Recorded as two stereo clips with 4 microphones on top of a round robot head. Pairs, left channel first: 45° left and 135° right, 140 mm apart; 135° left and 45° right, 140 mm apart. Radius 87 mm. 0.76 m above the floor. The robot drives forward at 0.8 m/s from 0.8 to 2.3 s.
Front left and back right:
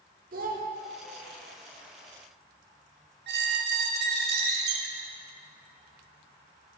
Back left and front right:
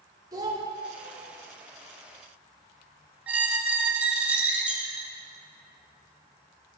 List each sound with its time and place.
0.3 s a child speaking: 110° right, 1.2 m
3.3 s a squeak: 130° right, 0.6 m